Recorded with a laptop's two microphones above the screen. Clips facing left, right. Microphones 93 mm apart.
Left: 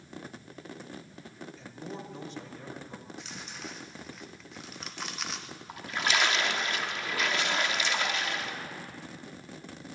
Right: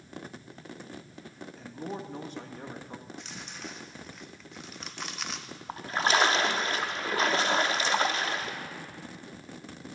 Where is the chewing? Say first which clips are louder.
Even; centre (ahead or behind), 0.5 m.